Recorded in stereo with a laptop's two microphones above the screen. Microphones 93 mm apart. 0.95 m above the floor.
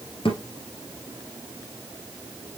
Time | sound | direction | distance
0.2 | a thud | 65° left (ahead or behind) | 2 m